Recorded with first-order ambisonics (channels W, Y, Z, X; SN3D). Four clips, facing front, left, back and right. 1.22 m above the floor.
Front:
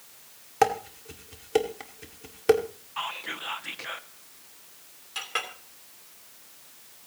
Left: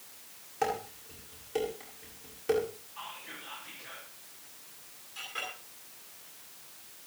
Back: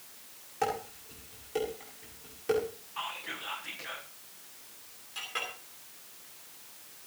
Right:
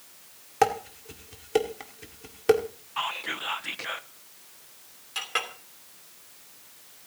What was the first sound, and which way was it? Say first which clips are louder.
Dishes clattering: right 8 dB, front 9 dB; 45° right.